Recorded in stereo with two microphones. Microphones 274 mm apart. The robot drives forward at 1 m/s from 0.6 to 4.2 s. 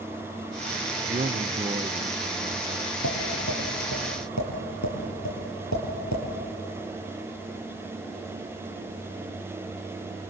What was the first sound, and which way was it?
A man speaking, 25° right (ahead or behind).